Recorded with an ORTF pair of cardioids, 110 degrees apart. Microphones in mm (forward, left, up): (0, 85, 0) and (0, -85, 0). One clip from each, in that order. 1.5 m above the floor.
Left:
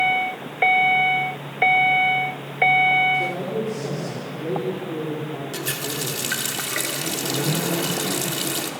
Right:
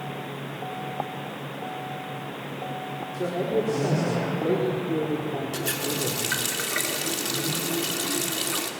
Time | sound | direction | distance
3.1 | a man speaking | 25° right | 4.5 m
5.5 | a running tap | 5° left | 2.5 m